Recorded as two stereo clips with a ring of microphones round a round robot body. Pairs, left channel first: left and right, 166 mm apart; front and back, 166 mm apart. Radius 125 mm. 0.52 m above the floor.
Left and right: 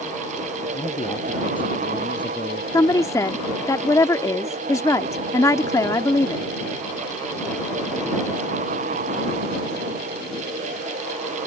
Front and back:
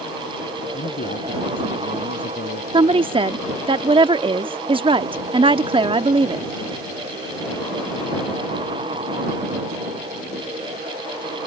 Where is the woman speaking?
150° left.